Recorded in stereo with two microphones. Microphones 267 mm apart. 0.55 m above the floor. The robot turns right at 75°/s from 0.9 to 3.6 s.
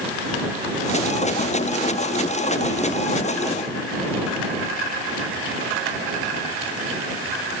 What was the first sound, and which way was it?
Only background noise.